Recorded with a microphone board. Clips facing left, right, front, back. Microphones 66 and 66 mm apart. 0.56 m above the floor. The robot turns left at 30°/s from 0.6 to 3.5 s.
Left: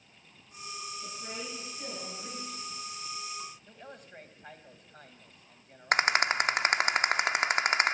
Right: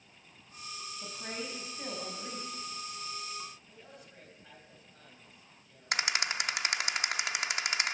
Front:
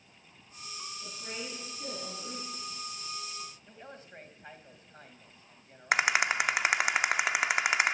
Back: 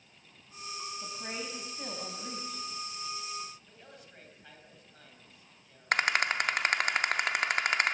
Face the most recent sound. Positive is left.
turn(degrees=75)